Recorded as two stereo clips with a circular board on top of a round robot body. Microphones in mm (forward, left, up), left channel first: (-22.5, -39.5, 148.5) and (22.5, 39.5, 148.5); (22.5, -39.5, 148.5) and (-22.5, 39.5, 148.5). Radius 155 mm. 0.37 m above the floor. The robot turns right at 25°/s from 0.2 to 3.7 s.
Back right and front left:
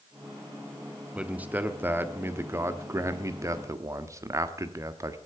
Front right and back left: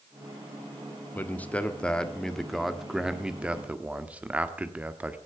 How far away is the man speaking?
About 1.5 m.